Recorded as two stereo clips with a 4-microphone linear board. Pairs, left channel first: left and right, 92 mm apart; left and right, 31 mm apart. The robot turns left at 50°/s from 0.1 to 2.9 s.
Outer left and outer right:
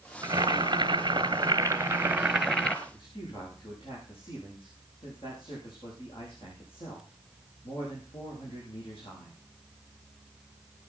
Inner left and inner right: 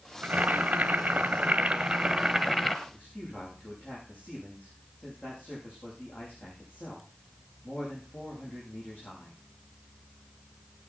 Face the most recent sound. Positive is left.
turn(degrees=80)